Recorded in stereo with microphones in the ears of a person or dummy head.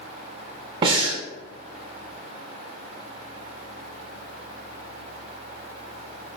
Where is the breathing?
30° right (ahead or behind), 0.6 m.